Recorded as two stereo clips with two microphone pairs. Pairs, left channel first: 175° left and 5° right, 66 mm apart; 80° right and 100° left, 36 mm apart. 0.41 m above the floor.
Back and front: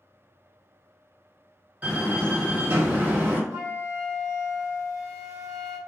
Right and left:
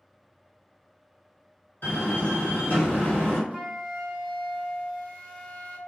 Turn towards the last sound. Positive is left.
turn(degrees=-5)